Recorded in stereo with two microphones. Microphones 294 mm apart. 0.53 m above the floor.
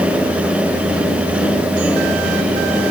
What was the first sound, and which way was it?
Only background noise.